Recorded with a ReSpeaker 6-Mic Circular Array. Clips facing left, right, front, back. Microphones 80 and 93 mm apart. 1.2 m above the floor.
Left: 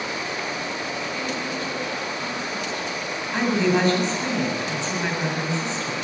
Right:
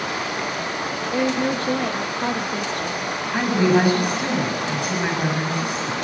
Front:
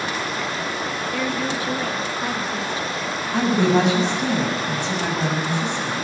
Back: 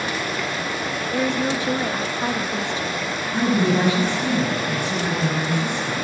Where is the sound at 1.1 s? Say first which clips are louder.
Right 7 dB, back 4 dB; 115° right, 2.0 m.